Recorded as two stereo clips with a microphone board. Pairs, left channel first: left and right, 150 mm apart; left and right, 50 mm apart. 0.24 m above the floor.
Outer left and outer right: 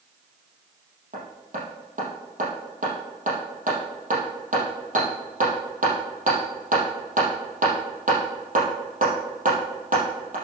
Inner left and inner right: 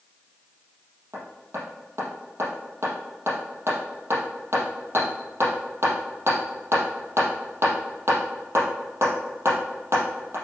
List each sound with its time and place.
1.1 s hammering: 60° right (ahead or behind), 4 m